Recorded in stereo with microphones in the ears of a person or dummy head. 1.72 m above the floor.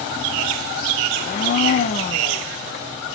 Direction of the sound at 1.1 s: 35° left (ahead or behind).